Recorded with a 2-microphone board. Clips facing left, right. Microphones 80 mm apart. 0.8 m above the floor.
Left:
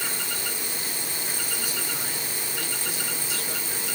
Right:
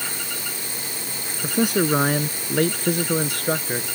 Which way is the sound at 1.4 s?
65° right (ahead or behind).